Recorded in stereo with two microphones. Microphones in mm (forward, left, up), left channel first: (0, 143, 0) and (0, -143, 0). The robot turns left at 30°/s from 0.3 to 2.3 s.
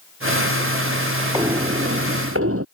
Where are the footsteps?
10° right (ahead or behind); by 2.6 s 55° right (ahead or behind).